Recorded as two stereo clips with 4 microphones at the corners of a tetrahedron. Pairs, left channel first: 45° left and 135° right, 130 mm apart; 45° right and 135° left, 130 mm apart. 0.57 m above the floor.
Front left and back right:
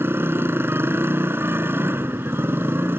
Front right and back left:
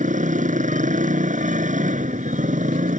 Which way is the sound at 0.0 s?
150° left.